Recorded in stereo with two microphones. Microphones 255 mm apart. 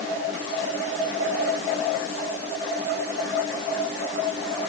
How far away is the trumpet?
I don't hear a trumpet.